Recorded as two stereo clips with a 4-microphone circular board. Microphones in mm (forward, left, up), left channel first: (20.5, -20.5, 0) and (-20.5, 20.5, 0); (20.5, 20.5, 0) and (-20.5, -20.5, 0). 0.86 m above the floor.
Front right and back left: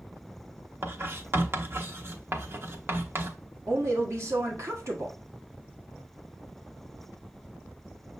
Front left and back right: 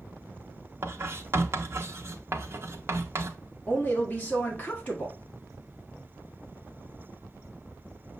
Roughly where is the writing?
Behind.